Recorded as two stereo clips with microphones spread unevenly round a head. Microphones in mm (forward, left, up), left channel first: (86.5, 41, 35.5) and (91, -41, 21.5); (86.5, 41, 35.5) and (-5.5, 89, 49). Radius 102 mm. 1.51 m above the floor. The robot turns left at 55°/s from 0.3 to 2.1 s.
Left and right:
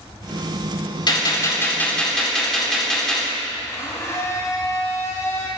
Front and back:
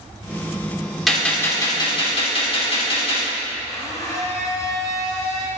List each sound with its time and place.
1.1 s a gunshot: 65° left, 4.5 m; by 3.3 s 5° left, 4.5 m
3.7 s a blender: 40° left, 3.5 m